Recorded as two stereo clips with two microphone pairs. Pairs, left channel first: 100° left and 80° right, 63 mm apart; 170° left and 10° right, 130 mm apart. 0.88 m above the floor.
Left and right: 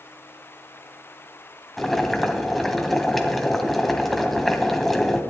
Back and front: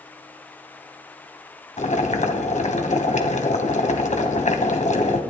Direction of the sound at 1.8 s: 170° right.